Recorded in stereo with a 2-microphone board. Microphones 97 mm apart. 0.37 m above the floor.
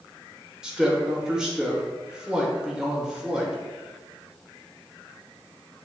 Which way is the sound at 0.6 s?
10° right (ahead or behind).